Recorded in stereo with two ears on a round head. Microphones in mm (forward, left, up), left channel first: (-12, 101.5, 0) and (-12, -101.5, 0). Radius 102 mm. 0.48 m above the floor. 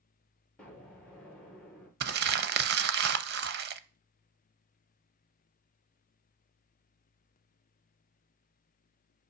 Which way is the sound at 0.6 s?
5° left (ahead or behind).